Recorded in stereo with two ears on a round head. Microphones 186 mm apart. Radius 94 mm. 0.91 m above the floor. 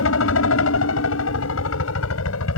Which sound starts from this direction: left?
A helicopter, at 0.0 s.